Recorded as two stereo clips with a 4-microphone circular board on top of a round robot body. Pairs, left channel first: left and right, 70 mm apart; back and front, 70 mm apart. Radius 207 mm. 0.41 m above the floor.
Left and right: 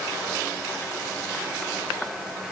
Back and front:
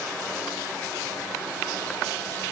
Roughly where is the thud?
I don't hear a thud.